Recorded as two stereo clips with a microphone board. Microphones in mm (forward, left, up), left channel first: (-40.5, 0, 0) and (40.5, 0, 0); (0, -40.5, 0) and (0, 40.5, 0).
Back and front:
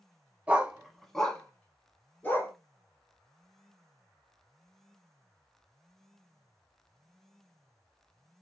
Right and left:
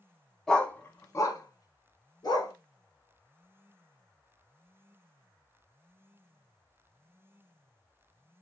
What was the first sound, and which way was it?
A dog barking, 25° right.